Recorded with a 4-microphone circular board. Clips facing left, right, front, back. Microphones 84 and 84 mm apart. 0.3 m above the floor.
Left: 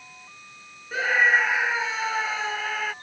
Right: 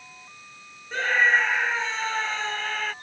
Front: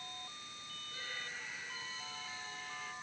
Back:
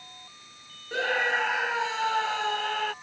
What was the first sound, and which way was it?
A scream, 175° left.